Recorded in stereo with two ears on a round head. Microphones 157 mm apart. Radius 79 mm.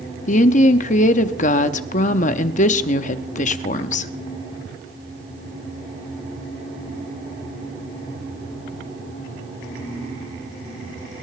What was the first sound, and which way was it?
A woman speaking, 45° left (ahead or behind).